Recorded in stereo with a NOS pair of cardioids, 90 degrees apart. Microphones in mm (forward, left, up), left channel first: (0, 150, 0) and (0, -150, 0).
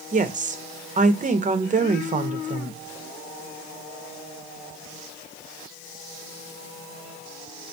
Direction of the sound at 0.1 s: 25° right.